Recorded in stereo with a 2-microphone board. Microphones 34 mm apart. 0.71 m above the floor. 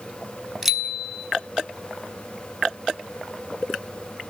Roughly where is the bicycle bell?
Centre.